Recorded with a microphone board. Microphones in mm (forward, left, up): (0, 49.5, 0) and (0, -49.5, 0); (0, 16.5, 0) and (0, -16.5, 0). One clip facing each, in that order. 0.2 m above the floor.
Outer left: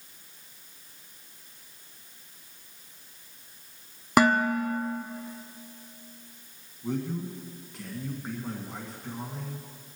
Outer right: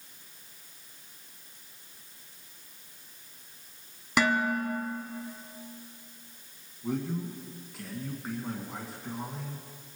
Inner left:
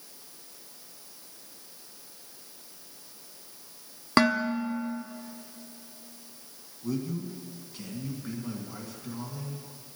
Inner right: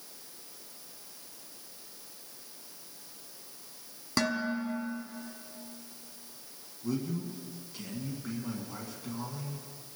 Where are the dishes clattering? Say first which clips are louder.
Outer left 5 dB, inner left 7 dB; 50° left (ahead or behind), 1.0 m.